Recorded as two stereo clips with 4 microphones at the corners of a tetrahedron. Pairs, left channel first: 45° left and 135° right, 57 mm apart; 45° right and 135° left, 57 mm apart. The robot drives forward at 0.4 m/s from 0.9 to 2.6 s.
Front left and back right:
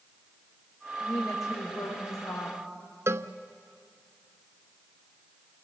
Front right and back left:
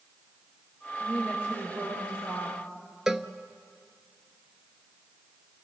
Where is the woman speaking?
70° left, 9 m; by 2.6 s 75° left, 9 m.